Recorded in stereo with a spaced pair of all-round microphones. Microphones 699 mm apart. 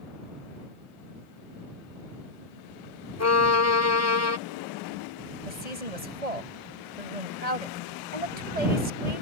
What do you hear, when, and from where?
3.2 s a violin: 20° left (ahead or behind)
5.5 s a woman speaking: 60° right (ahead or behind)